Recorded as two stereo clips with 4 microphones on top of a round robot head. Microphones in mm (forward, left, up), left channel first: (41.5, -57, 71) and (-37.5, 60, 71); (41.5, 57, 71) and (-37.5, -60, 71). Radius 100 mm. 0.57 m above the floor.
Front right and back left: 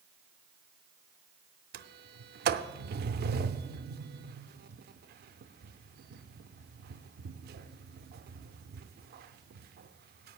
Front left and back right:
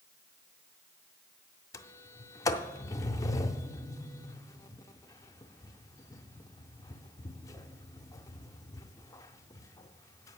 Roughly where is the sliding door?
Behind left.